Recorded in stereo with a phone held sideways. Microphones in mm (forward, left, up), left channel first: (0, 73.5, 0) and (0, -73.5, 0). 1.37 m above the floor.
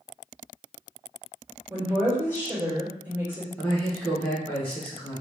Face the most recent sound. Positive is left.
turn(degrees=10)  # may be behind; listen again after turning